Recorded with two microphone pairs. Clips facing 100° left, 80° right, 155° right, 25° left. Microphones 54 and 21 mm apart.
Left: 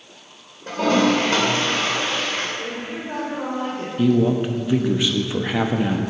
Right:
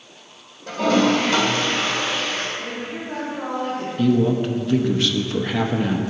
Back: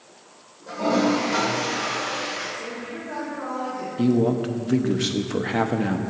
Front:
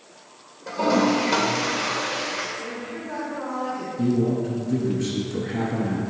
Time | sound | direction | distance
0.7 | a toilet flushing | 60° left | 3 m
2.6 | a woman speaking | 100° left | 2.5 m
4.0 | a man speaking | straight behind | 0.7 m